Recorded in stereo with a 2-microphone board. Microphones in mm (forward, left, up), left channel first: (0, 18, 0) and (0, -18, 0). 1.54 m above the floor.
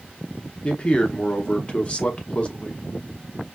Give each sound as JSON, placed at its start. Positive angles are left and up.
{"t": 0.6, "sound": "a man speaking", "side_deg": 30, "distance_m": 0.7}